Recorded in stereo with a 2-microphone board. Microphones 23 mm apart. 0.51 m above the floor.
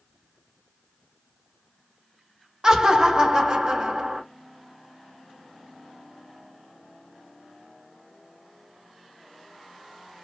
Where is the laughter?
25° right (ahead or behind), 0.9 m.